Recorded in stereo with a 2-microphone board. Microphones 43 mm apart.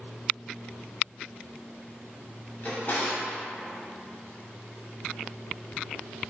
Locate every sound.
2.6 s a drawer: 50° left (ahead or behind), 0.7 m